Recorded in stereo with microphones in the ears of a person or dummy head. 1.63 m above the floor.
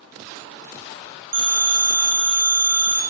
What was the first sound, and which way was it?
A phone ringing, 55° right (ahead or behind).